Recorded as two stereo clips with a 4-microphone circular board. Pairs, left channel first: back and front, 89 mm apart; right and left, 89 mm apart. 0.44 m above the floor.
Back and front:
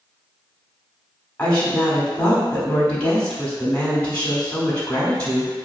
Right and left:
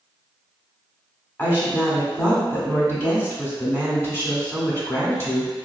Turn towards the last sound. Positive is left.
turn(degrees=-115)